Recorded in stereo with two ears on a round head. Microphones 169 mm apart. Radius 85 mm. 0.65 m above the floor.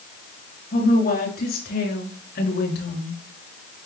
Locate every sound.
0.7 s a woman speaking: 50° left (ahead or behind), 7.5 m; by 3.2 s 65° left (ahead or behind), 6 m